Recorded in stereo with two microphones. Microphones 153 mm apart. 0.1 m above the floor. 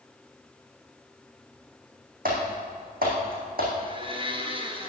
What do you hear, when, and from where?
2.2 s typing on a keyboard: 70° right (ahead or behind), 4 m
3.8 s a blender: 35° right (ahead or behind), 1.7 m